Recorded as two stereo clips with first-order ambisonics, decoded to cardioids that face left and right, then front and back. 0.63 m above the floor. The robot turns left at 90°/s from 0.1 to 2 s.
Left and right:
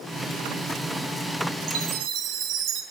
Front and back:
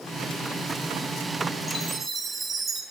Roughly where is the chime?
Right.